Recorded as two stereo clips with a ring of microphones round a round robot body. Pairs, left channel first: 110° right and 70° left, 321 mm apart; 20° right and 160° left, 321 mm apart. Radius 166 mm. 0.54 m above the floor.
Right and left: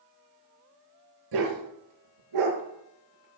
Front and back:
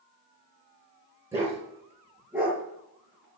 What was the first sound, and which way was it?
A dog barking, 75° left.